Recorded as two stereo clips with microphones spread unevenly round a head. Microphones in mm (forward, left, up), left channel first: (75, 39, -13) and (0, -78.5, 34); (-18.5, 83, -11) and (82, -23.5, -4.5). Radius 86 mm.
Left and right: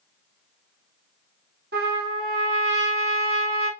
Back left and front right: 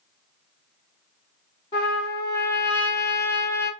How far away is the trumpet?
About 1.5 m.